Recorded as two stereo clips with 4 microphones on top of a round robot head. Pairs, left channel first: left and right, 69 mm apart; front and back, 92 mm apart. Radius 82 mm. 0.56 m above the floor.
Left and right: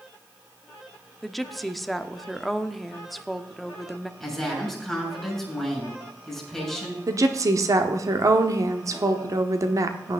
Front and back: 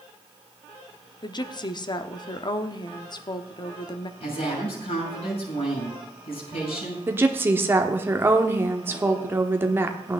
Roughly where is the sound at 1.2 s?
Ahead.